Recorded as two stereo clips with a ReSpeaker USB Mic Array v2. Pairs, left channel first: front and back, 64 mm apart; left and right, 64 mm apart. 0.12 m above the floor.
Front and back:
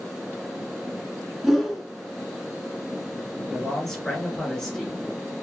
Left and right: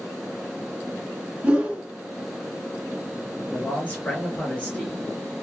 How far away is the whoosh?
About 0.7 m.